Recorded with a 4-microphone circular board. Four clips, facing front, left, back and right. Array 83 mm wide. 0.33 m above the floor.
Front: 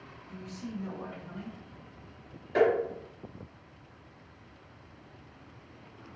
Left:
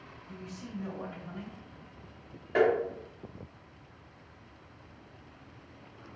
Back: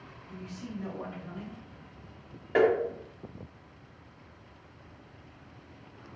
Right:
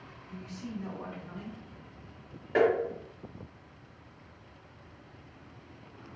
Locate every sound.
0.3 s a man speaking: 175° left, 1.2 m; by 1.6 s 120° left, 1.2 m
2.5 s tapping: 175° right, 1.3 m